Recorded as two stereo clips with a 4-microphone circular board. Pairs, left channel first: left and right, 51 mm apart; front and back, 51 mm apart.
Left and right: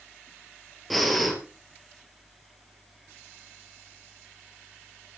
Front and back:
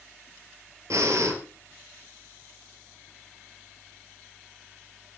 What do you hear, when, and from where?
0.9 s breathing: straight behind, 2.5 m